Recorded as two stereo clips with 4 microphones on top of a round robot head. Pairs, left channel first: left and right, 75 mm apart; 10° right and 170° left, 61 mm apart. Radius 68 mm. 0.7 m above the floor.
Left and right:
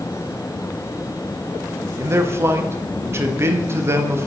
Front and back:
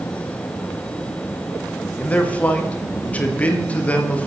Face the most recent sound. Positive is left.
turn(degrees=-65)